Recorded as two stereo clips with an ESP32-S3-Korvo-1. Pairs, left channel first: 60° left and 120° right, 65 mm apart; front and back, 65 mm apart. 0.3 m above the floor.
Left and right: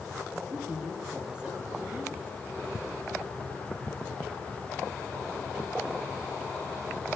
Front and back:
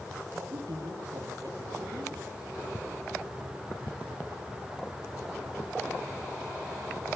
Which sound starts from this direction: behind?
A woman speaking, at 0.3 s.